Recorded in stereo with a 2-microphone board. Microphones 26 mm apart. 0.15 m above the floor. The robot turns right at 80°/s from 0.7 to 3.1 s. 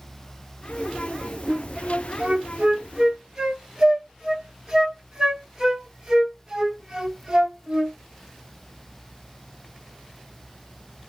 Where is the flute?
20° right (ahead or behind), 1.0 m; by 8.0 s 25° right (ahead or behind), 1.0 m.